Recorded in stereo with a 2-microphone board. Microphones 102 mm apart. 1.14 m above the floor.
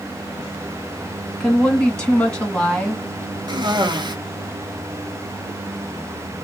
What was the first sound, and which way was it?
A woman speaking, 10° left (ahead or behind).